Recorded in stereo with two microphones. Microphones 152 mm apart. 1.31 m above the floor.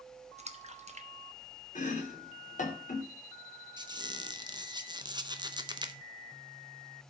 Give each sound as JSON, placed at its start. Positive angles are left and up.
{"t": 0.4, "sound": "a splash", "side_deg": -45, "distance_m": 1.1}
{"t": 1.8, "sound": "chopping", "side_deg": 55, "distance_m": 2.5}
{"t": 3.8, "sound": "a squeak", "side_deg": -30, "distance_m": 0.8}